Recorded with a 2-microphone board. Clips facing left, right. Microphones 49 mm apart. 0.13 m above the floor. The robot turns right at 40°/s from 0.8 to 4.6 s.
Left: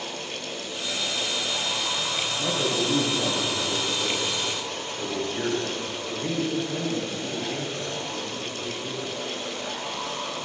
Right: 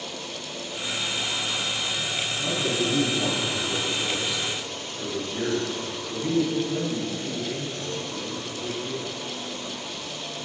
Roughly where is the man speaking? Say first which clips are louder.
Even; left.